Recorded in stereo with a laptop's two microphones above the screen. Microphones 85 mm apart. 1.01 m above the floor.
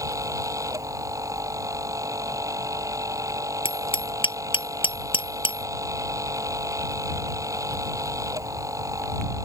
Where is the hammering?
85° left.